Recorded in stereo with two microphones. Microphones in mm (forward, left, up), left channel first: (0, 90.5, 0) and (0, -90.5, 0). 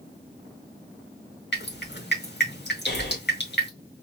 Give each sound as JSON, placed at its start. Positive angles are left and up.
{"t": 1.5, "sound": "dripping", "side_deg": 70, "distance_m": 2.5}
{"t": 2.9, "sound": "breathing", "side_deg": 70, "distance_m": 2.5}